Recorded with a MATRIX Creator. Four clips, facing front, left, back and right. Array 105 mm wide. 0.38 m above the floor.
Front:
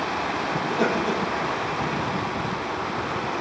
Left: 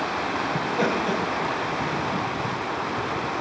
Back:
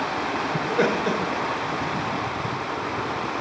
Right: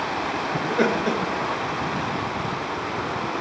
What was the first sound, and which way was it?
Laughter, 130° right.